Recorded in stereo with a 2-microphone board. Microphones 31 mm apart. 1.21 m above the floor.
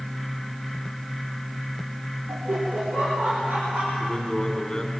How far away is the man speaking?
About 3 m.